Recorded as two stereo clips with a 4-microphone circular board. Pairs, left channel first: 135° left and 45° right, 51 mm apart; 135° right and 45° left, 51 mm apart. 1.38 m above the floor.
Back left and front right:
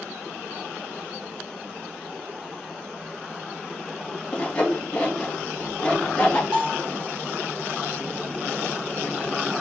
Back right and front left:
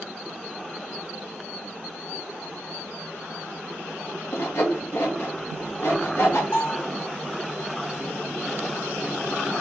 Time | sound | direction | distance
4.3 | sawing | 160° right | 1.1 m
6.5 | a bell | 95° right | 3.5 m